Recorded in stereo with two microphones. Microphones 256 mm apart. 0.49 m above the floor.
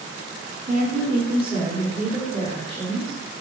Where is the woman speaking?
40° right (ahead or behind), 1.5 m; by 3.2 s 10° right (ahead or behind), 1.9 m.